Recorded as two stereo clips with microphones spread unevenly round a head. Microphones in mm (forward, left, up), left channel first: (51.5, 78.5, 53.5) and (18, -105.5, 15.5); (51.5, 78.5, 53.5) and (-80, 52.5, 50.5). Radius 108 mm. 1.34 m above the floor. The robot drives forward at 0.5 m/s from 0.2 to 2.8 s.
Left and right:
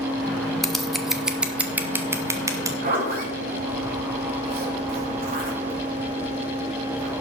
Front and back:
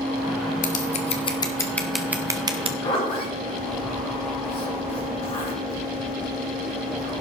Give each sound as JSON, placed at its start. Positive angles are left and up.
{"t": 0.6, "sound": "scissors", "azimuth_deg": 5, "distance_m": 0.9}
{"t": 2.8, "sound": "a zipper", "azimuth_deg": -60, "distance_m": 7.0}